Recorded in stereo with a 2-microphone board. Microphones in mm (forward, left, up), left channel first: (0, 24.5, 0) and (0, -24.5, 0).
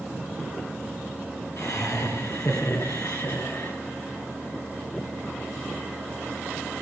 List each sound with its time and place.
1.6 s laughter: 75° left (ahead or behind), 8.5 m; by 3.7 s 65° left (ahead or behind), 9.5 m